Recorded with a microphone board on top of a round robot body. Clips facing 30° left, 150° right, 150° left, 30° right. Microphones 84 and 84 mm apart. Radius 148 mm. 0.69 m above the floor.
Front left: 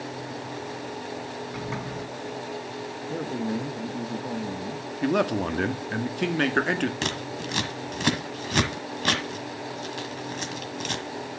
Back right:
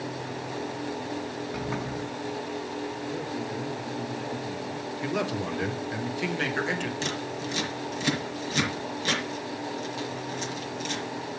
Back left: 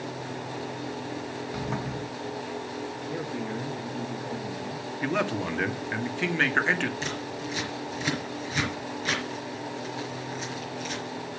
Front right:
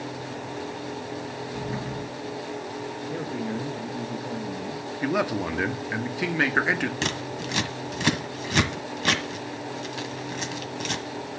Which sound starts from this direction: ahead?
Scissors, at 7.0 s.